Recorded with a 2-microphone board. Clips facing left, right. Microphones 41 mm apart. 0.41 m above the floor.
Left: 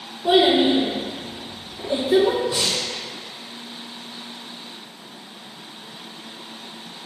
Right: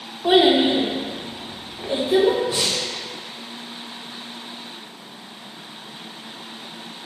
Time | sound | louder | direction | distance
0.2 | a child speaking | right 1 dB | 45° right (ahead or behind) | 2 m
2.5 | breathing | even | 10° right (ahead or behind) | 1.9 m